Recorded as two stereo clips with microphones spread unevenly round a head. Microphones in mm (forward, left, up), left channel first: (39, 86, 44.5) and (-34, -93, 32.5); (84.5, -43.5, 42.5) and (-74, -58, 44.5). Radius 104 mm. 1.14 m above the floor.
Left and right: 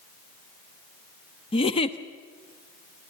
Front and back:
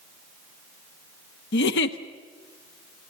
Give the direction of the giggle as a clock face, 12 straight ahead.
12 o'clock.